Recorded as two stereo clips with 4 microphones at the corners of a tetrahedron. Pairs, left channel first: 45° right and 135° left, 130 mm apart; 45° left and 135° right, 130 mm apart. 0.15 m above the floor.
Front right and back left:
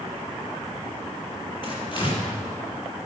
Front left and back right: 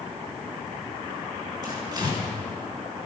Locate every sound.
1.6 s tearing paper: 85° right, 3.5 m